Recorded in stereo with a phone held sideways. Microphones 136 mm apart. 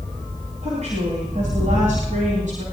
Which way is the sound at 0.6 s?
60° right (ahead or behind).